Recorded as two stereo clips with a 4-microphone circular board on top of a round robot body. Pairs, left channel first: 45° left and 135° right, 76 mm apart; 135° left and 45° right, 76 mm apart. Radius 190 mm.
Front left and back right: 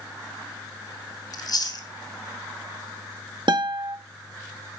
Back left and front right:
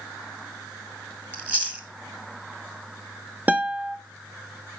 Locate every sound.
1.3 s chewing: 25° left, 2.5 m
3.5 s a guitar: 115° right, 0.5 m